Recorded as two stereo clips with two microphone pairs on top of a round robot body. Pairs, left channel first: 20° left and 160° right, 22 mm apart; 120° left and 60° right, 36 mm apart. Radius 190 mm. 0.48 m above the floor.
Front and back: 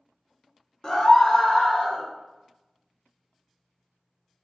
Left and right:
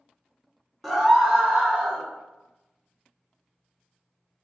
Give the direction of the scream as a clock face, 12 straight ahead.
11 o'clock.